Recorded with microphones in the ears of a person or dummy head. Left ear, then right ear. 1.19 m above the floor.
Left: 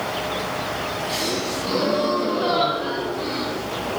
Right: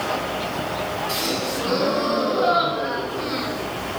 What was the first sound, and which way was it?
A gasp, 5° right (ahead or behind).